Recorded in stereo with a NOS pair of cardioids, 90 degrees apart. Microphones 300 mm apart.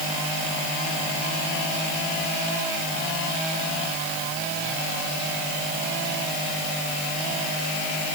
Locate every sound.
Only background noise.